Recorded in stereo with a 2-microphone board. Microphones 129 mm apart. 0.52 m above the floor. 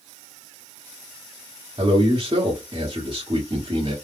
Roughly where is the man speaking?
Right.